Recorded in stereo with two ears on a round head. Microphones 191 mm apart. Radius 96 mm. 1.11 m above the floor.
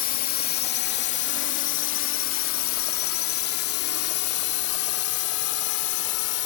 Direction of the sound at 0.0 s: 40° left (ahead or behind).